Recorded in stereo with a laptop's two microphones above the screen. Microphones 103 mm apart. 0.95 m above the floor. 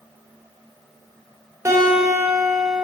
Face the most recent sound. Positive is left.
turn(degrees=-25)  # may be behind; listen again after turning